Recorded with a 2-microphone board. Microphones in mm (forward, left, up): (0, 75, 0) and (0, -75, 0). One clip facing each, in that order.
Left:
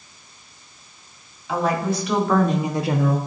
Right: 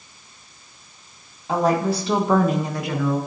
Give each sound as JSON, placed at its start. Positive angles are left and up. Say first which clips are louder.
{"t": 1.5, "sound": "a woman speaking", "louder": "right 2 dB", "side_deg": -45, "distance_m": 1.8}